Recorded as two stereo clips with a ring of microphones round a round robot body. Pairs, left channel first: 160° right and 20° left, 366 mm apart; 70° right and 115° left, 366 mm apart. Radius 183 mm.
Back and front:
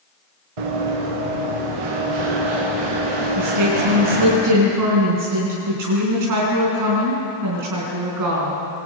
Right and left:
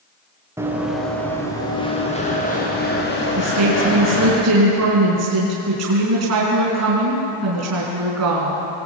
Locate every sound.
0.6 s running footsteps: 30° left, 5 m; by 4.3 s 10° right, 9 m
3.4 s a woman speaking: 65° left, 4.5 m